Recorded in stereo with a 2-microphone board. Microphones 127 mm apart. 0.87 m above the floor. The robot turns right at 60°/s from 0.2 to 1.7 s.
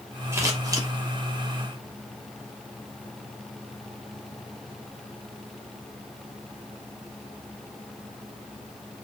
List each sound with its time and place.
0.3 s scissors: 20° right (ahead or behind), 1.1 m; by 0.9 s 30° right (ahead or behind), 1.1 m